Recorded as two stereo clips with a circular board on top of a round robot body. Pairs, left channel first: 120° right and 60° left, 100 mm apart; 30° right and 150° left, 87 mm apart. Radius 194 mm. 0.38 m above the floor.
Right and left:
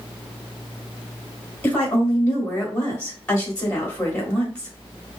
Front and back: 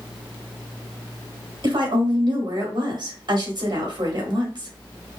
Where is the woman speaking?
165° left, 2.5 m.